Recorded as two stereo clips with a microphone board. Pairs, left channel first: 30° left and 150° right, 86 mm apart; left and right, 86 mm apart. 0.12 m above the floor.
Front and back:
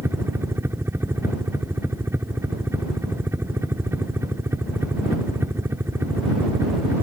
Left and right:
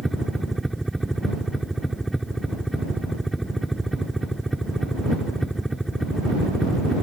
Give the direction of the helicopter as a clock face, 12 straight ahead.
6 o'clock.